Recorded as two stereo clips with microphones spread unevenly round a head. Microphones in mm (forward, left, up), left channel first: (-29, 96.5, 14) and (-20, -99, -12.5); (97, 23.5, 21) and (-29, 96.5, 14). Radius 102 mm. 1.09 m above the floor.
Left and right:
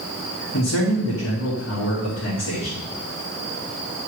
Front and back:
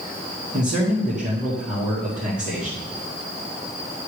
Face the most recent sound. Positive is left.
turn(degrees=115)